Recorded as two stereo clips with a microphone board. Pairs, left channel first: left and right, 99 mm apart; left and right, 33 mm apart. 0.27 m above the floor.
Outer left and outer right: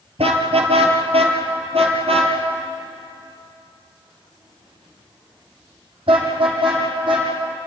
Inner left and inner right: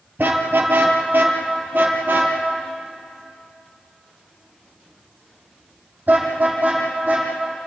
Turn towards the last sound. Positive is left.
turn(degrees=-55)  # may be behind; listen again after turning